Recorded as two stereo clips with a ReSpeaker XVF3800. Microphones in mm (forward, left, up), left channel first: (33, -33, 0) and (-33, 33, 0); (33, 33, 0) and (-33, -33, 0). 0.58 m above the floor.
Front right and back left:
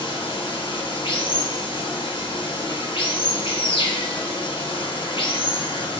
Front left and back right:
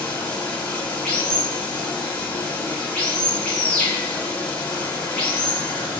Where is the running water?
30° right, 1.5 m.